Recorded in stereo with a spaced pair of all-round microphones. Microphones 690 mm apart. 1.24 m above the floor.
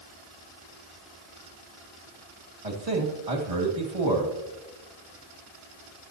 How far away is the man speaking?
About 2 m.